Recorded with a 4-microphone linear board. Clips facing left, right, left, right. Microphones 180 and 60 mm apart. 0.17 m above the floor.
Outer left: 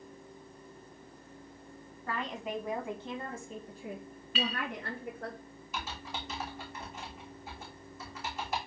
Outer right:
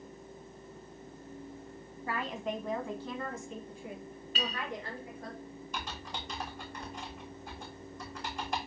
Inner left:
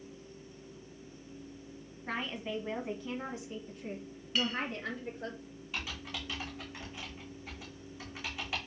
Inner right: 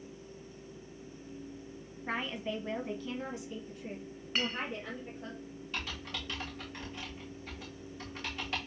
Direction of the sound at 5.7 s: 5° left (ahead or behind).